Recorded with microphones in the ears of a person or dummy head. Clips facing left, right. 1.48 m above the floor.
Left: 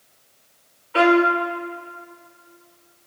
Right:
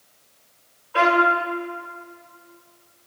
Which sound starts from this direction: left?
A violin, at 0.9 s.